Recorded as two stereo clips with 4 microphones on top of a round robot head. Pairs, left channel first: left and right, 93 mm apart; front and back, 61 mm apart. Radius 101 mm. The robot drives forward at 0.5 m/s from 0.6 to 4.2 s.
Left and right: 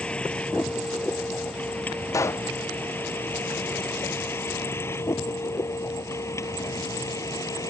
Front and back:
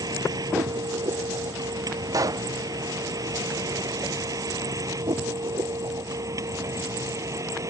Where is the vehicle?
170° left; by 7.7 s 145° left.